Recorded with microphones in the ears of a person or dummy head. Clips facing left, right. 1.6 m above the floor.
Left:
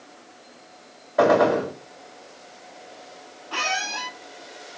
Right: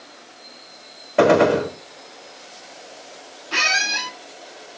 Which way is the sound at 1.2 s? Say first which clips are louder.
Right 3 dB; 40° right (ahead or behind).